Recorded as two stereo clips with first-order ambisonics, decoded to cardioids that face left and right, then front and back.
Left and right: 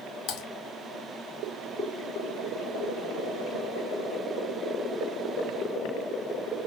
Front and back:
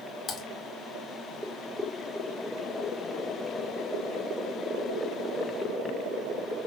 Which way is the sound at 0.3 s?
60° left.